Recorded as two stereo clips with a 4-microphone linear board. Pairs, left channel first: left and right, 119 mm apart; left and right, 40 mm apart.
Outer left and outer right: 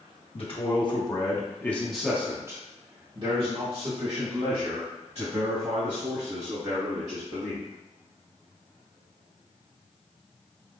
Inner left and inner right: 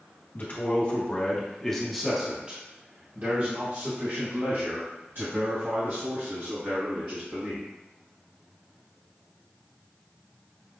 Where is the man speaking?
50° left (ahead or behind), 1.3 m; by 7.6 s 75° right (ahead or behind), 3.5 m.